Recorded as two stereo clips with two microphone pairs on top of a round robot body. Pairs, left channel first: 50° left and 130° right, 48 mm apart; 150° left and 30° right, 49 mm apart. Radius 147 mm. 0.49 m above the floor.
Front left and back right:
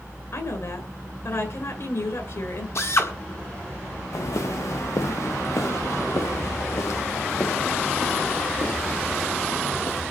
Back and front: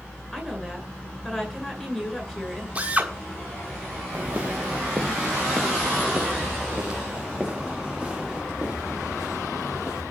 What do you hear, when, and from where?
0.3 s a woman speaking: 65° left, 9.5 m
2.8 s a drill: 35° left, 7 m
4.1 s footsteps: 35° left, 3 m; by 10.0 s 55° left, 10 m